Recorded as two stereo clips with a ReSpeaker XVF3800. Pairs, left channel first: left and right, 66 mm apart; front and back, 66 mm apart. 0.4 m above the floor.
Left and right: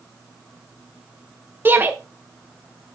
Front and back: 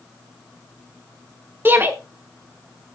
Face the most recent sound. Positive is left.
turn(degrees=-135)